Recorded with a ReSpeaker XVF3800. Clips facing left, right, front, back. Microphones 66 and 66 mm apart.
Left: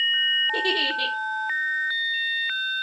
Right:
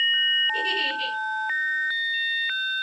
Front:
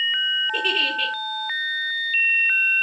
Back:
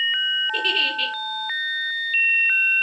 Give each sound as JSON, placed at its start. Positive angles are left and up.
{"t": 0.5, "sound": "a giggle", "azimuth_deg": 80, "distance_m": 4.5}